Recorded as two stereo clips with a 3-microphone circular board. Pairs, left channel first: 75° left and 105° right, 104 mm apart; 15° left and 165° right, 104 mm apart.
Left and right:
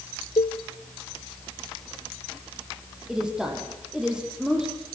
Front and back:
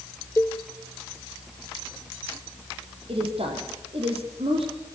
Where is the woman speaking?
170° left, 6.5 m.